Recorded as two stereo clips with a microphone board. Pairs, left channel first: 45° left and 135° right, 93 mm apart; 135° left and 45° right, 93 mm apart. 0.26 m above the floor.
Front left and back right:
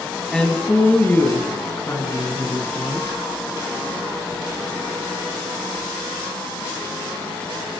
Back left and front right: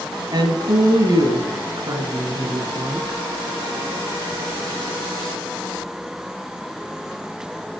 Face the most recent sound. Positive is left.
turn(degrees=5)